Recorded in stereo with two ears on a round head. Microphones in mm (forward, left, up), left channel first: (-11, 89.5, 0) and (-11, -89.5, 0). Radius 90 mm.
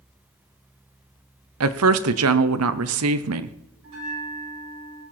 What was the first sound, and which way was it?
A woman speaking, 85° right.